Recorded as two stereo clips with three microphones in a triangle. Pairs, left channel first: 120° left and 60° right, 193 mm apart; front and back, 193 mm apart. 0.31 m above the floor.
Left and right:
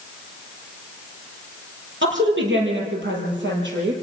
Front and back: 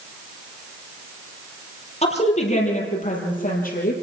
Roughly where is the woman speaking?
Ahead right.